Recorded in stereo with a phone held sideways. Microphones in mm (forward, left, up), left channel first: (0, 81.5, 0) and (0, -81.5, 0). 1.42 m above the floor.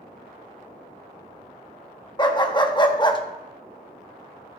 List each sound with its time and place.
2.2 s a dog barking: 30° left (ahead or behind), 0.9 m